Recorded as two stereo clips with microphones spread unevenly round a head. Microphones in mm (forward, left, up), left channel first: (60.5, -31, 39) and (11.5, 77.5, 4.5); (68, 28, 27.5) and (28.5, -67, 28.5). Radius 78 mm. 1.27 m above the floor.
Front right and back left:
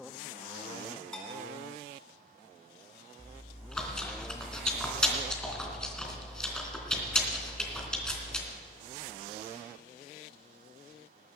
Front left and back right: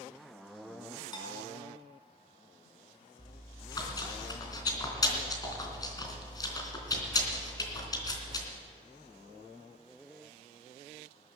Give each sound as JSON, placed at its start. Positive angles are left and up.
{"t": 1.1, "sound": "a bell", "azimuth_deg": 15, "distance_m": 4.5}
{"t": 3.2, "sound": "chewing", "azimuth_deg": 15, "distance_m": 3.5}